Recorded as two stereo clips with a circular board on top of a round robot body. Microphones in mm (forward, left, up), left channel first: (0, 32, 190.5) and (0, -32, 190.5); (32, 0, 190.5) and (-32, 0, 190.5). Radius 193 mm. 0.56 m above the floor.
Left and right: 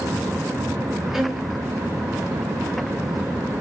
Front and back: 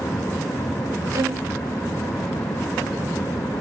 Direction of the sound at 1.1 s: 170° right.